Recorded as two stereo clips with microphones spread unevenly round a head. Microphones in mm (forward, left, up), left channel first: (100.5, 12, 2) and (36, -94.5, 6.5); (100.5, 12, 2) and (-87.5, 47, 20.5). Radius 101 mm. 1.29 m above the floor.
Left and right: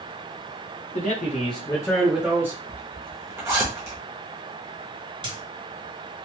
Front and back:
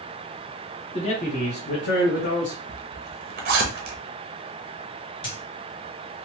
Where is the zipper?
170° left, 0.7 m.